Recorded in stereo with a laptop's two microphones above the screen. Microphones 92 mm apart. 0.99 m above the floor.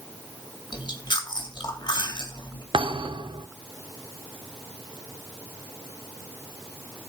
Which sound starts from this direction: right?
A thud, at 2.7 s.